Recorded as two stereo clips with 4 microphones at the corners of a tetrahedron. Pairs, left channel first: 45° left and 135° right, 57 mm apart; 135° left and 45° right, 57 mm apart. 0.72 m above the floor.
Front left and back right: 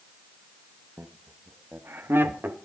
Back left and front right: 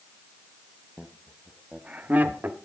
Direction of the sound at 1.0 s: 150° right.